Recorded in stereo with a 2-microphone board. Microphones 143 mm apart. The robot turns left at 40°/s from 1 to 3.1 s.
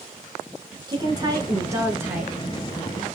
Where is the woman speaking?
30° right (ahead or behind), 1.2 m; by 2.3 s 10° right (ahead or behind), 1.2 m.